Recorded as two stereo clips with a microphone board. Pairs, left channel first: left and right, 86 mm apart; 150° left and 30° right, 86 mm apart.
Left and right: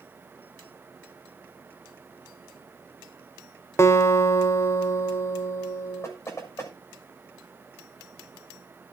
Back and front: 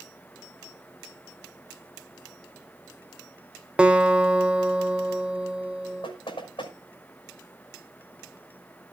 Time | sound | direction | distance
3.8 | a guitar | 45° left | 1.3 m
6.0 | knocking | 150° left | 6 m